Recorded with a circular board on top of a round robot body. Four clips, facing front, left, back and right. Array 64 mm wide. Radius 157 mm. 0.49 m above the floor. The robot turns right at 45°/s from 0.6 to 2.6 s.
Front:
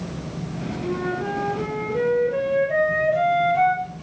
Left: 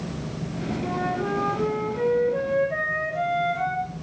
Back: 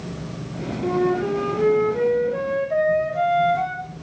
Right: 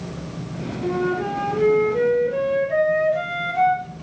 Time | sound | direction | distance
0.8 | a flute | 120° right | 5 m